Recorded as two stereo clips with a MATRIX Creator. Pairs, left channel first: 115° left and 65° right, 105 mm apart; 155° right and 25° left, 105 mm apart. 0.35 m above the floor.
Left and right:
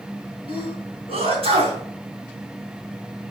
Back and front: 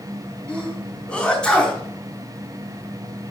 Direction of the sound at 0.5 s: 75° right.